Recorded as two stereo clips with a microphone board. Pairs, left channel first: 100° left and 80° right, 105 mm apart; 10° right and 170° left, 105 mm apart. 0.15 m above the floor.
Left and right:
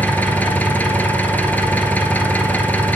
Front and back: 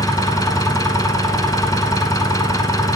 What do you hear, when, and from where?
0.0 s an engine running: 30° left, 0.8 m